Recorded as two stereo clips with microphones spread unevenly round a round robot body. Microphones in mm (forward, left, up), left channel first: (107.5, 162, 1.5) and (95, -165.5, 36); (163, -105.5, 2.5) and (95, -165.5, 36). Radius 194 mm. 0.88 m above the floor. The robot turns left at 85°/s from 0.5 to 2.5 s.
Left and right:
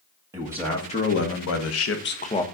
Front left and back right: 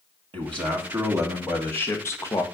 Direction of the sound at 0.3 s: 175° right.